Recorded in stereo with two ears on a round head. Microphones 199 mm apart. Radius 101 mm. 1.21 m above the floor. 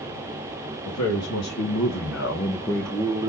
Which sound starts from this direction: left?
A man speaking, at 0.8 s.